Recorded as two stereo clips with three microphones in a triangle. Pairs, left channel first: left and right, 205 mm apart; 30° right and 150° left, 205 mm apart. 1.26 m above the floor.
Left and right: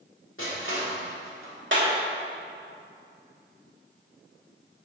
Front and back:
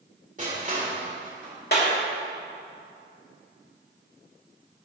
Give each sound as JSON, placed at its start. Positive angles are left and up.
{"t": 0.4, "sound": "crushing", "azimuth_deg": 100, "distance_m": 3.5}
{"t": 1.7, "sound": "a clap", "azimuth_deg": -70, "distance_m": 3.0}